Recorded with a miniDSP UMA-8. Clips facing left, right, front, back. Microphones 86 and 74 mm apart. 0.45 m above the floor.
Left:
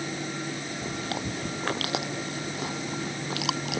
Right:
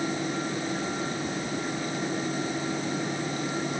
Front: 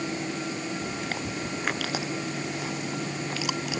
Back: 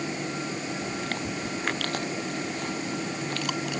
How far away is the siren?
I don't hear a siren.